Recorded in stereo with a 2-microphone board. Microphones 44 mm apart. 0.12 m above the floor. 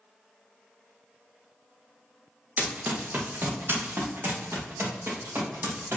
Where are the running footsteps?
35° right (ahead or behind), 1.4 m; by 6.0 s 75° right (ahead or behind), 3 m.